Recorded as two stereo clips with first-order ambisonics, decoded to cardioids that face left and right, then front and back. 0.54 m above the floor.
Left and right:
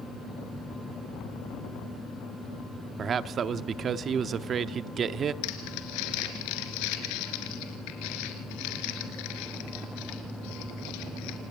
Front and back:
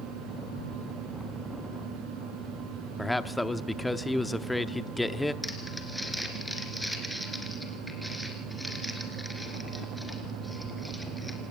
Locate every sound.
3.0 s a man speaking: 80° right, 0.7 m
5.4 s crumpling: 90° left, 3 m